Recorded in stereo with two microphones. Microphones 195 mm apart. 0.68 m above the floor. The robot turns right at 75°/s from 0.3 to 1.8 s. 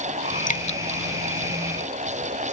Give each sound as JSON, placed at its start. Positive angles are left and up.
{"t": 0.5, "sound": "dripping", "side_deg": 45}